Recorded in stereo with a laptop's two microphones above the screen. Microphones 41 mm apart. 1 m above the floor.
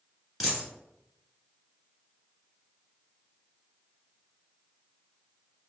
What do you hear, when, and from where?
0.4 s a dropped coin: 5° right (ahead or behind), 1.9 m